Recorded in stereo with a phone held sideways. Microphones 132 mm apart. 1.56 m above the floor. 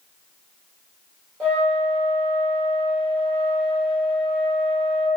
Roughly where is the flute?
Centre.